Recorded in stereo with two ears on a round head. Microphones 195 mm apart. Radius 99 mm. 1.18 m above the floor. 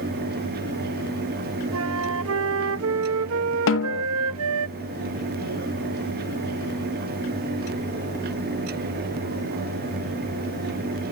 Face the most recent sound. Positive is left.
turn(degrees=65)  # may be behind; listen again after turning